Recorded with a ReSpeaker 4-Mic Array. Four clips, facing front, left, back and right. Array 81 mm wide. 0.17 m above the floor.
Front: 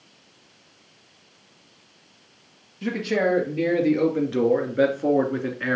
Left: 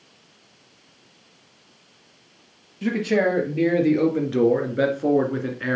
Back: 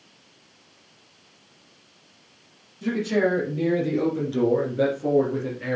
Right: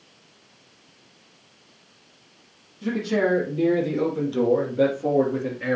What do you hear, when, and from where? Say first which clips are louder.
2.8 s a man speaking: left 2 dB, back 1 dB; 65° left, 3.5 m; by 5.8 s 25° left, 2.0 m